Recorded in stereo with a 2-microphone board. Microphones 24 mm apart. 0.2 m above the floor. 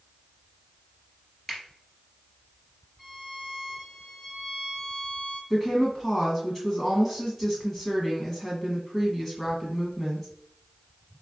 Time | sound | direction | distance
1.5 | a finger snap | 15° left (ahead or behind) | 2.5 m
3.0 | a violin | 5° right (ahead or behind) | 2 m
5.5 | a woman speaking | 15° left (ahead or behind) | 1.2 m